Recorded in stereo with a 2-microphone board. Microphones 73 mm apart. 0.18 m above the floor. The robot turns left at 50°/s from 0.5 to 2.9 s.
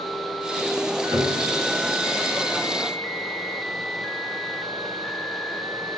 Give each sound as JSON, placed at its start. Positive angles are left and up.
{"t": 1.1, "sound": "a piano", "side_deg": -25, "distance_m": 2.5}